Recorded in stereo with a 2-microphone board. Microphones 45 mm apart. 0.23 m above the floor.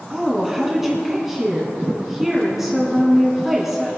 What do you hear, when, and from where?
0.1 s a woman speaking: 5° right (ahead or behind), 2.5 m